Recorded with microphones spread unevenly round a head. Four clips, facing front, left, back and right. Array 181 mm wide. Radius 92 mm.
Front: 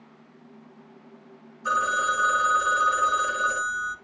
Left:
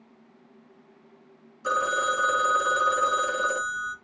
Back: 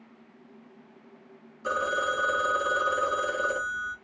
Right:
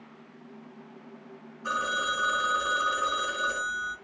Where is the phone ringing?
140° left, 0.9 m.